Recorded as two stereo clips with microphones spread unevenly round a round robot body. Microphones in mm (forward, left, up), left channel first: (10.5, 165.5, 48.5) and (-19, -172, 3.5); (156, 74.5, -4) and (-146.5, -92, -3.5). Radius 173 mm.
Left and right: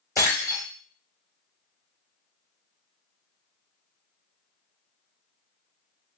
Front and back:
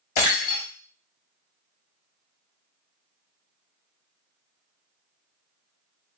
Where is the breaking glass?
Straight ahead, 0.9 m.